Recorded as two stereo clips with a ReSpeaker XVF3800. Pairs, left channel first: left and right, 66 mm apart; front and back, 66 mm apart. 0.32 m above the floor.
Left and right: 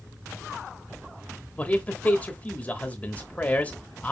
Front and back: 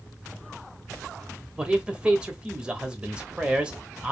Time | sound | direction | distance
1.6 | a man speaking | 125° left | 1.0 m